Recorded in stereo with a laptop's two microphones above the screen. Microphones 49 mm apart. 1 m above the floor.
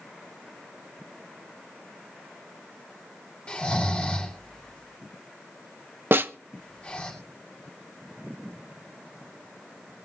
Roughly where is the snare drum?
Right.